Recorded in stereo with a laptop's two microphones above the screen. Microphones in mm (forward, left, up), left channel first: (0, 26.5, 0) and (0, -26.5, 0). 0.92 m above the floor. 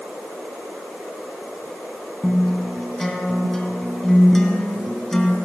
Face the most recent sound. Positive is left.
turn(degrees=10)  # may be behind; listen again after turning